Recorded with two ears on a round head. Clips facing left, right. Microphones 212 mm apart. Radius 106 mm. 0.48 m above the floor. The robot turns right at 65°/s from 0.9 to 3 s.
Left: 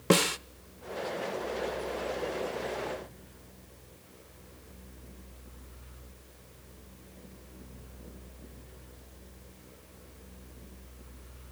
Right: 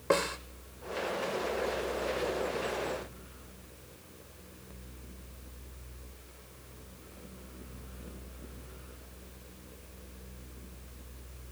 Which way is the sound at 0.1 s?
45° left (ahead or behind).